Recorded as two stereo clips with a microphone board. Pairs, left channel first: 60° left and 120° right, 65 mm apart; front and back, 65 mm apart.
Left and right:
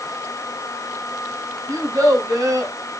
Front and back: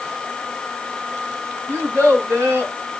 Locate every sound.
1.7 s a child speaking: 125° right, 2.0 m